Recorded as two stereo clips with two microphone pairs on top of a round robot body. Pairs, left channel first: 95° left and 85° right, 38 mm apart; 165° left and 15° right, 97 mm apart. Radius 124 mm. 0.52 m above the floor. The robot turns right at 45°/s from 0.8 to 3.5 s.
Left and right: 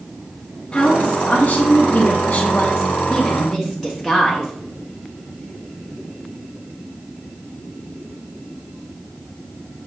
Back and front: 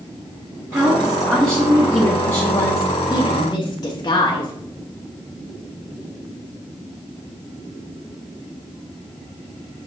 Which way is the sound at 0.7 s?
55° left.